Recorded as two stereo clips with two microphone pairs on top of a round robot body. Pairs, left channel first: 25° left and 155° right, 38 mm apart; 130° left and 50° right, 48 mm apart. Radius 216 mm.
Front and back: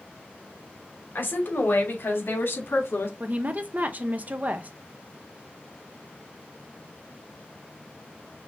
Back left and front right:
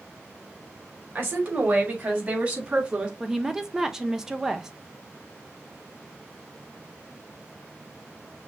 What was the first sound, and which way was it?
A woman speaking, 10° right.